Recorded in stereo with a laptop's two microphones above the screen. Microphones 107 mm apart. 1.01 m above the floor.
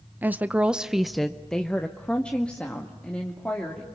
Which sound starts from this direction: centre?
A woman speaking, at 0.2 s.